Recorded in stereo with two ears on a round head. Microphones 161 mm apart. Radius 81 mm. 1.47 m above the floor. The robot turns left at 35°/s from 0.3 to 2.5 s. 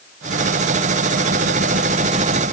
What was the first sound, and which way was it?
Only background noise.